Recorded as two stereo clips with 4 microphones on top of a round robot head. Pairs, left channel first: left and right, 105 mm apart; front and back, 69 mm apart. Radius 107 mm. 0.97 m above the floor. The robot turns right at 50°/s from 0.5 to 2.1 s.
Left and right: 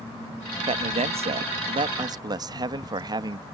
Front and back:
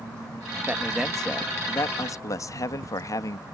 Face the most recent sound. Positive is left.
turn(degrees=-40)